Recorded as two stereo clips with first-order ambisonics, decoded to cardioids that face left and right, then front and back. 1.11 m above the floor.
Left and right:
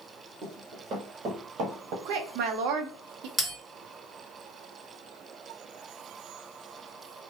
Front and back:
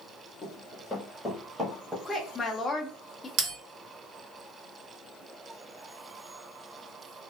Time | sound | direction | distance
0.4 | running footsteps | 60° right | 1.2 m
2.0 | a woman speaking | 75° right | 0.5 m
3.4 | a bell | 170° right | 1.6 m